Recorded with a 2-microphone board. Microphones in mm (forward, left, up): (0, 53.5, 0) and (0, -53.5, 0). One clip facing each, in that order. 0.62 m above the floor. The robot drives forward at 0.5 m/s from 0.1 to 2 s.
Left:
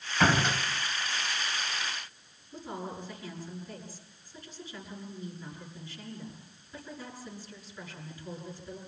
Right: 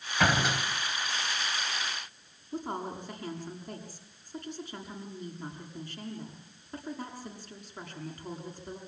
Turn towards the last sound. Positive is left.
turn(degrees=-65)  # may be behind; listen again after turning